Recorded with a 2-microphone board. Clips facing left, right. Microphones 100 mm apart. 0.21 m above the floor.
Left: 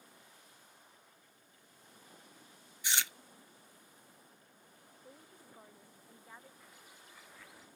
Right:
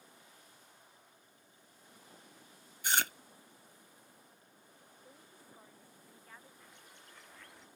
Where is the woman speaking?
15° left (ahead or behind).